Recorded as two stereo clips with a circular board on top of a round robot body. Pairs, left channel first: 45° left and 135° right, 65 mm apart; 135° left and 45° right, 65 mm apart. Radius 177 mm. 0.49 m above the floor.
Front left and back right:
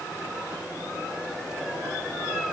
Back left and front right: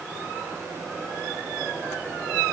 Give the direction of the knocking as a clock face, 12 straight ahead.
I don't hear knocking.